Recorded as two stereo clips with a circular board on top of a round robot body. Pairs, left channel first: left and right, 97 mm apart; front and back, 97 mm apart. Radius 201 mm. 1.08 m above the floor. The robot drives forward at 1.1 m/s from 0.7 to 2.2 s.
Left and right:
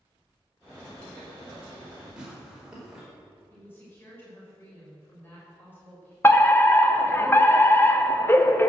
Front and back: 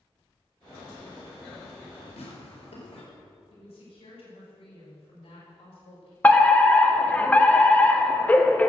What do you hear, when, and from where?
2.2 s tearing paper: 10° right, 4.5 m
3.5 s a woman speaking: 20° left, 6 m
6.2 s a fire alarm: 55° left, 1.6 m